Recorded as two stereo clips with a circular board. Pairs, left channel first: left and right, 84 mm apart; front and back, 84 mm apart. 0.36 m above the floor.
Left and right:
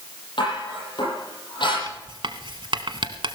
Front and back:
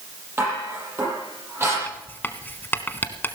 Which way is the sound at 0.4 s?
120° left.